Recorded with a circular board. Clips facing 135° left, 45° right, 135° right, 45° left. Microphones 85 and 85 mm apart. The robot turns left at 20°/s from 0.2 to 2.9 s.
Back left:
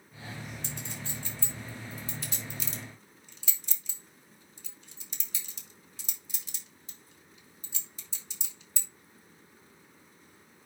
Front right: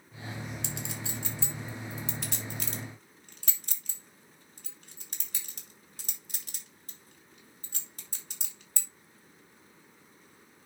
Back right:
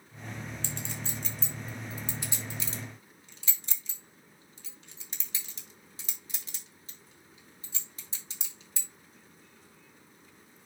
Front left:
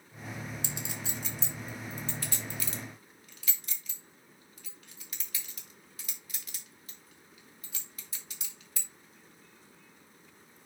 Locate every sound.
0.6 s a clink: 30° right, 2.5 m; by 8.9 s 75° right, 2.5 m